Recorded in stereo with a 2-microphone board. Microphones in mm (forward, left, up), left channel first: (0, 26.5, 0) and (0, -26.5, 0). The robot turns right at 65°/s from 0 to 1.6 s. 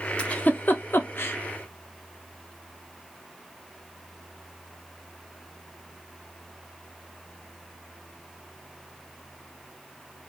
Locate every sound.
0.2 s a giggle: 20° left (ahead or behind), 0.6 m; by 1.4 s 40° left (ahead or behind), 0.6 m